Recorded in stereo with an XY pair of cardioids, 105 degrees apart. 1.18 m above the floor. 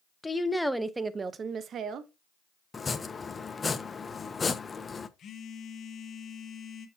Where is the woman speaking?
20° left, 0.8 m; by 2.1 s 70° right, 1.0 m.